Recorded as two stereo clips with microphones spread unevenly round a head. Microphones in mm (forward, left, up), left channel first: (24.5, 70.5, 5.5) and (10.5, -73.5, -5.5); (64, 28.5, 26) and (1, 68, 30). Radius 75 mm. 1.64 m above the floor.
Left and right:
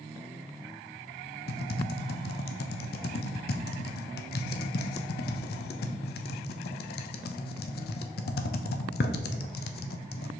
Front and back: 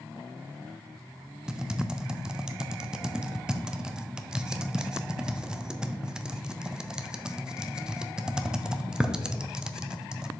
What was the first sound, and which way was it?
Typing on a keyboard, 65° left.